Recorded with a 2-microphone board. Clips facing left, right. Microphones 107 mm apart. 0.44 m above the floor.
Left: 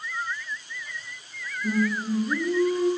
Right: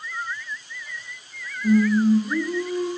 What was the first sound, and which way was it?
Singing, 20° right (ahead or behind).